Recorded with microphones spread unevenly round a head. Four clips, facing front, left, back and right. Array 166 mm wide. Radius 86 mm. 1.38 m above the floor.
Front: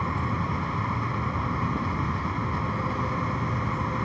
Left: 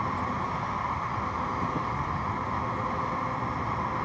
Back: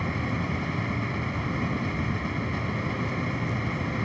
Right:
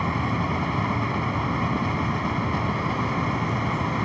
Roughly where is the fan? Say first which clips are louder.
Right 4 dB, front 2 dB; right.